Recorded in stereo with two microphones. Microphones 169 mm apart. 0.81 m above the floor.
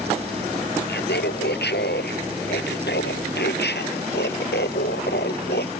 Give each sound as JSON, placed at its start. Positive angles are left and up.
{"t": 0.9, "sound": "laughter", "side_deg": 85}